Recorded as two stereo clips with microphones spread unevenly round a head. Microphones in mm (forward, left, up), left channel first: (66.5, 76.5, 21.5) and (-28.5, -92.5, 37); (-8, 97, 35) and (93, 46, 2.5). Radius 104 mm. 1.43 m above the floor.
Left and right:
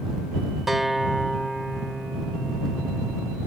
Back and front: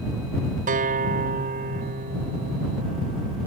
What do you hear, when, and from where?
0.7 s a guitar: 30° right